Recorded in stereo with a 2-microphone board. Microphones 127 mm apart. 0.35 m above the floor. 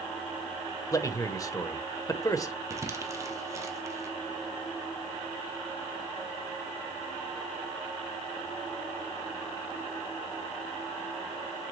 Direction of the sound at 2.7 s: 25° right (ahead or behind).